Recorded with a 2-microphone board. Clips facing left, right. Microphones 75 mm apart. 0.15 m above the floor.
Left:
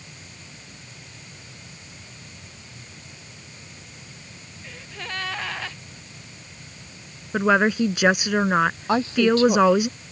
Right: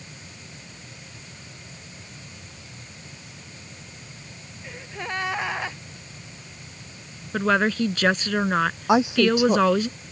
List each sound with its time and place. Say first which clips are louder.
4.6 s a gasp: right 3 dB; 20° right (ahead or behind)
7.3 s a woman speaking: left 2 dB; 15° left (ahead or behind)
8.9 s a woman speaking: right 2 dB; 15° right (ahead or behind)